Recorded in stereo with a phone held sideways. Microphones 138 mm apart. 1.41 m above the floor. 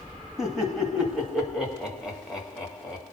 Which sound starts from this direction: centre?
Laughter, at 0.4 s.